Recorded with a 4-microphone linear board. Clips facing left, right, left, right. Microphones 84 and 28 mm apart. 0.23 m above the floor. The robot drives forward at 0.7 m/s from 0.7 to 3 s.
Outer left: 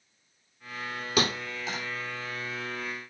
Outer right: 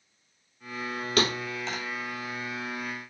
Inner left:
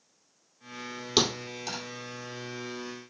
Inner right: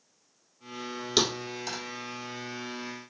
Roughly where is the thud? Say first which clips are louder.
Outer right 1 dB, inner left 1 dB; centre.